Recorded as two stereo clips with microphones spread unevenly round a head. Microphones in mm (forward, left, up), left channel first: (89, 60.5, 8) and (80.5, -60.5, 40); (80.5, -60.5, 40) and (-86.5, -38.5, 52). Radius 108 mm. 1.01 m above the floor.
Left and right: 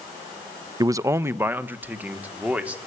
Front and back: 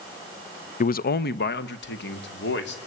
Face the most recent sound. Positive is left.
turn(degrees=-15)